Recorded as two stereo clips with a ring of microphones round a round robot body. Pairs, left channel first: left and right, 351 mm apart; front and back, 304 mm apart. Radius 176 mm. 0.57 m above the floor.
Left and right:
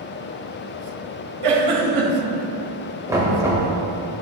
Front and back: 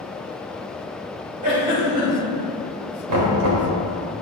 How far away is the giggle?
About 3 m.